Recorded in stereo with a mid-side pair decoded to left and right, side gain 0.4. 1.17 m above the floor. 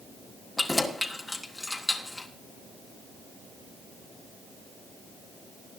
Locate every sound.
0.6 s keys jangling: 20° left, 1.9 m